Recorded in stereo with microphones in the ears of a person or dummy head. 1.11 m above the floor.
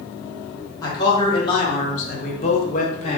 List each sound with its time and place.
0.8 s a man speaking: 20° left (ahead or behind), 1.1 m; by 3.2 s 30° left (ahead or behind), 0.8 m